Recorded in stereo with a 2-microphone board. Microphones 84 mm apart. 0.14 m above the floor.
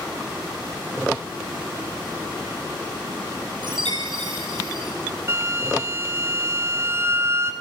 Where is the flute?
35° right (ahead or behind), 1.9 m.